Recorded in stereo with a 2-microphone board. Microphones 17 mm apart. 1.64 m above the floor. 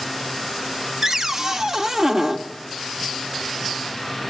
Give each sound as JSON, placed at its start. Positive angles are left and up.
{"t": 1.0, "sound": "a cupboard door", "side_deg": -30, "distance_m": 1.5}